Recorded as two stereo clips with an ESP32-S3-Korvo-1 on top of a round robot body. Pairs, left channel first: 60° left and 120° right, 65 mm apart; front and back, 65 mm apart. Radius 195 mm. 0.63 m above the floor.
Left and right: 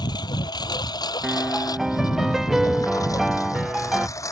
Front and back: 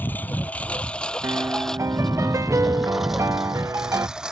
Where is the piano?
160° left.